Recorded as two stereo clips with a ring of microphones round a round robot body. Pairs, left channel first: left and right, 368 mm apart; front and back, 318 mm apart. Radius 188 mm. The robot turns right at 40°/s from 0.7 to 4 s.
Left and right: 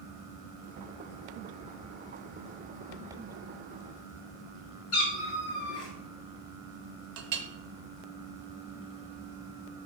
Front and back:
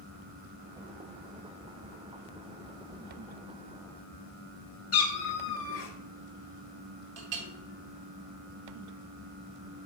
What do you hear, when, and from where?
4.9 s a cat meowing: 40° left, 1.0 m
7.2 s a clink: 135° right, 0.7 m